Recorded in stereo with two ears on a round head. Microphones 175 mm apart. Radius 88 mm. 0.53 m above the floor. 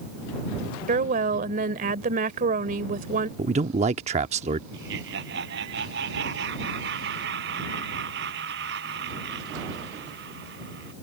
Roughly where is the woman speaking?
Right.